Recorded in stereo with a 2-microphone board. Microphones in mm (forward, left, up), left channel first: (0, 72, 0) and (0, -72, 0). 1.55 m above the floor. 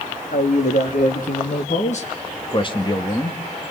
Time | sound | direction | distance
0.3 | a man speaking | 85° left | 3 m